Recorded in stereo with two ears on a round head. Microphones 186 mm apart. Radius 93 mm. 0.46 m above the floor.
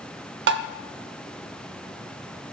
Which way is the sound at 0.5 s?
55° right (ahead or behind).